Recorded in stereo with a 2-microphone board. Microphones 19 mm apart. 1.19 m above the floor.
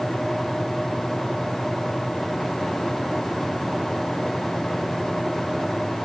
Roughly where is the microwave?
I don't hear a microwave.